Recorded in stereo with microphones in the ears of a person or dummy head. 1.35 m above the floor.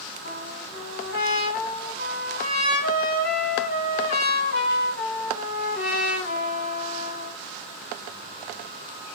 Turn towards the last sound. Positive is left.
turn(degrees=55)  # may be behind; listen again after turning